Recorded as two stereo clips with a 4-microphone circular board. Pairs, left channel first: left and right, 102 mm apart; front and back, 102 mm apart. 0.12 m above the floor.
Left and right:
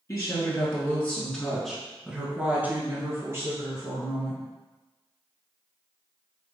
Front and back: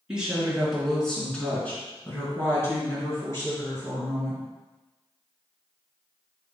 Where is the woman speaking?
105° left, 1.9 m; by 4.4 s 50° right, 3 m.